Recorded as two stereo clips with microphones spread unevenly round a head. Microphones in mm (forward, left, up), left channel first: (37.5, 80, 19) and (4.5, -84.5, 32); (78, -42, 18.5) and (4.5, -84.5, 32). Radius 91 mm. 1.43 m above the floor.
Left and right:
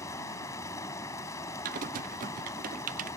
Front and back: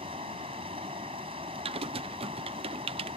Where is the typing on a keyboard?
150° right.